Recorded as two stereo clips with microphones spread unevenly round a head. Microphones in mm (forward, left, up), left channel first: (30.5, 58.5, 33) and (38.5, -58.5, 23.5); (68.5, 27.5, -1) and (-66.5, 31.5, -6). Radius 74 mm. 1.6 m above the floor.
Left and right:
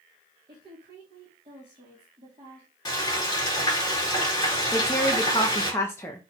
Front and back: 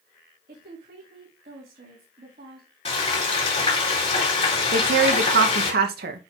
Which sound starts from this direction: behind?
A woman speaking, at 4.7 s.